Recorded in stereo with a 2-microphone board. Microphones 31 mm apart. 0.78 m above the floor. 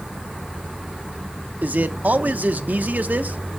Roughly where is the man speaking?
Right.